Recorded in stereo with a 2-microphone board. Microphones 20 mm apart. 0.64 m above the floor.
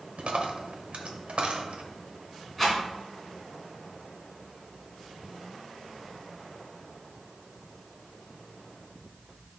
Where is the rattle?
Centre (ahead or behind), 3 m.